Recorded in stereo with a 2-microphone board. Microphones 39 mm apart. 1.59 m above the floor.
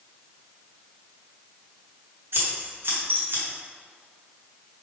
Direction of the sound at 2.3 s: 65° right (ahead or behind).